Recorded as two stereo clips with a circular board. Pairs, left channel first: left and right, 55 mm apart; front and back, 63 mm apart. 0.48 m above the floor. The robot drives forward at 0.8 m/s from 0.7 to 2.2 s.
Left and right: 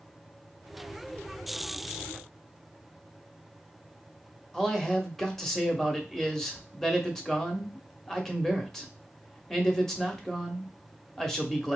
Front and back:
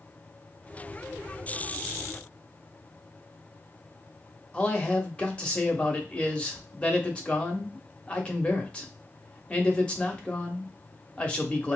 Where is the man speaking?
25° left, 0.7 m.